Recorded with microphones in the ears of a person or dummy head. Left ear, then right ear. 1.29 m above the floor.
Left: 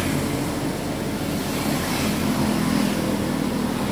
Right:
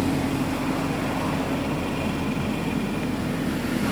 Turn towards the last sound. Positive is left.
turn(degrees=40)  # may be behind; listen again after turning